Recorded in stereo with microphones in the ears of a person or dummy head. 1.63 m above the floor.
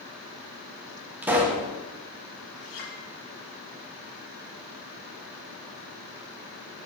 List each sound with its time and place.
1.2 s a pop: 10° right (ahead or behind), 1.4 m
2.6 s a clink: 45° left (ahead or behind), 3 m